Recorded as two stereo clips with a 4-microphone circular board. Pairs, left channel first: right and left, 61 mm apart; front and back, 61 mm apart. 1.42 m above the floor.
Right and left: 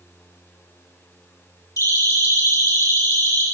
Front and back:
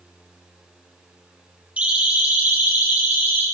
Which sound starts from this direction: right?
A siren, at 1.8 s.